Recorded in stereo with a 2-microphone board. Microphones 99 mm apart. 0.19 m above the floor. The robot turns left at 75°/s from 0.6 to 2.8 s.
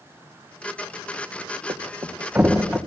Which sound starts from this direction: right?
A thud, at 1.7 s.